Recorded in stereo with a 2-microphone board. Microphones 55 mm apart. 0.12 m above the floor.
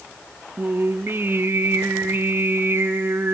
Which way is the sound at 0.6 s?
40° right (ahead or behind).